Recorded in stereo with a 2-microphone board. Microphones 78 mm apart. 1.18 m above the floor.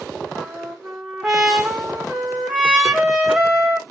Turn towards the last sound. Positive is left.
turn(degrees=-10)  # may be behind; listen again after turning